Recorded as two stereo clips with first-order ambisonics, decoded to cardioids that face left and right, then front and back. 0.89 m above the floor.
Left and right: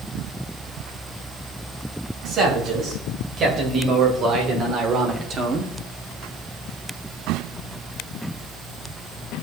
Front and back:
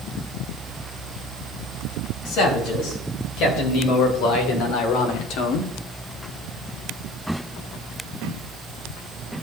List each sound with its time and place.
2.2 s a man speaking: 35° right, 4.5 m; by 5.7 s 30° right, 1.8 m